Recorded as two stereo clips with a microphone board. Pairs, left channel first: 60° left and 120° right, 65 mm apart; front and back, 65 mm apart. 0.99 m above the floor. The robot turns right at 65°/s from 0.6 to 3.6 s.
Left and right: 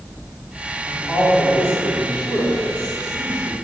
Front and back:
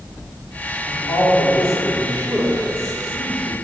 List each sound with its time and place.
0.9 s a man speaking: straight ahead, 3 m; by 3.5 s 175° left, 3 m